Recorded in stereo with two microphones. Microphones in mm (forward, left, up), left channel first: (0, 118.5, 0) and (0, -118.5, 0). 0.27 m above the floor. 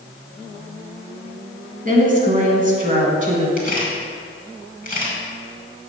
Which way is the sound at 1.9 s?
35° right (ahead or behind).